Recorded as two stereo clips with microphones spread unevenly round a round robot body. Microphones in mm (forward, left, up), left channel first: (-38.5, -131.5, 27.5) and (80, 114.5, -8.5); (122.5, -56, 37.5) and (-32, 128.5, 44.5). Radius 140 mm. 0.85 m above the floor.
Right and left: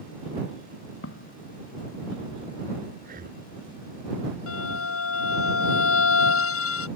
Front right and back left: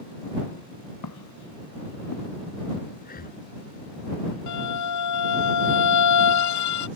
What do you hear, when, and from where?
1.0 s footsteps: 70° right
3.0 s breathing: 5° left
4.5 s a violin: 75° right